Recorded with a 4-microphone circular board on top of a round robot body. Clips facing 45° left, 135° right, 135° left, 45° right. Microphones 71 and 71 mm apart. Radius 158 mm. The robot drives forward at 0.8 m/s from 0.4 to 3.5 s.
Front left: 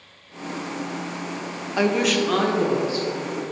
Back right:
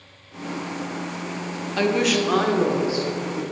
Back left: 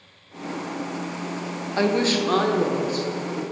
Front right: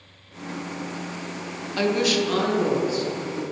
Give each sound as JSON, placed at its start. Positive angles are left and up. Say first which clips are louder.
{"t": 1.8, "sound": "a woman speaking", "louder": "even, back left 1 dB", "azimuth_deg": 105, "distance_m": 0.9}